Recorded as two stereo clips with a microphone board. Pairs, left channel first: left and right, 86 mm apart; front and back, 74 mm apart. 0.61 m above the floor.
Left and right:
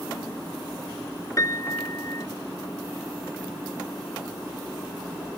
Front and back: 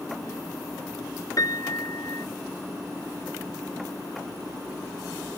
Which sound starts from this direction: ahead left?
A piano, at 1.4 s.